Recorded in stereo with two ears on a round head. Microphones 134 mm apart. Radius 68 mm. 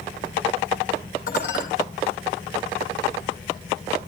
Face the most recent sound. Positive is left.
turn(degrees=75)  # may be behind; listen again after turning